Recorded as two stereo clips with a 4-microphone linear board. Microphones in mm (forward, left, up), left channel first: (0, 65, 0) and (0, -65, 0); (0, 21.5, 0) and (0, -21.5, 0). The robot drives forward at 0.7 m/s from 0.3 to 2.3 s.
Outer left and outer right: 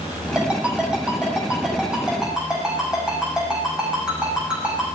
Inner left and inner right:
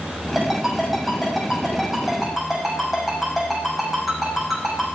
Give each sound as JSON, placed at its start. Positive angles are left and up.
{"t": 0.3, "sound": "a ringtone", "side_deg": -10, "distance_m": 4.0}